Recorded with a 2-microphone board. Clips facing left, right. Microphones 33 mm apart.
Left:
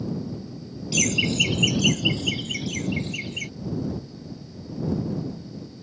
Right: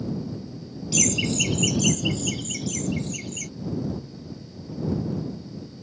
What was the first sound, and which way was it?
Laughter, 15° left (ahead or behind).